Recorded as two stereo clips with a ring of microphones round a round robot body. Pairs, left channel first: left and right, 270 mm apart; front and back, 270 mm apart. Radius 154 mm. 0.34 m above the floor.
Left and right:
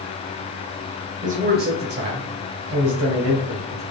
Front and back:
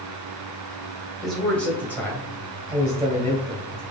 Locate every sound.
1.2 s a man speaking: 90° right, 1.1 m; by 3.8 s 70° right, 2 m